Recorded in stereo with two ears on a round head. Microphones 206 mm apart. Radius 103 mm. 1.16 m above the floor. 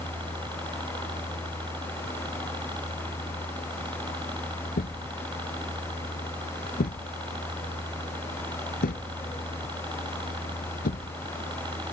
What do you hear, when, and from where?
0.0 s a helicopter: 20° right (ahead or behind)
4.8 s a thud: 40° left (ahead or behind)